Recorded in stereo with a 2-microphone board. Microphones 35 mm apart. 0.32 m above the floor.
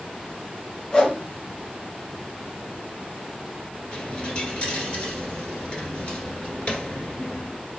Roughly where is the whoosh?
Left.